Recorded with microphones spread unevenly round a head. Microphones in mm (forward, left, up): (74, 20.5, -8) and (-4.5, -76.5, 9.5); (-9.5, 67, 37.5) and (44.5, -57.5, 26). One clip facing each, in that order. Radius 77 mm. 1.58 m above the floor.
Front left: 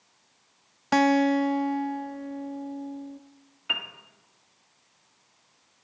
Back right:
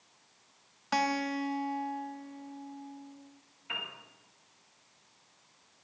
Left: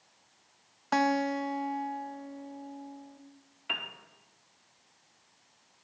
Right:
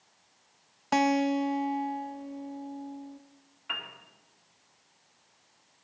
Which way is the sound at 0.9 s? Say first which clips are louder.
Front left 10 dB, right 3 dB; 15° left.